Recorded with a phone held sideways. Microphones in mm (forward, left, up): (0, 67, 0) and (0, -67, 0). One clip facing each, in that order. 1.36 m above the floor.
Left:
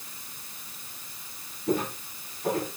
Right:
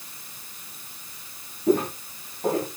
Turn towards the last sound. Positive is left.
turn(degrees=-80)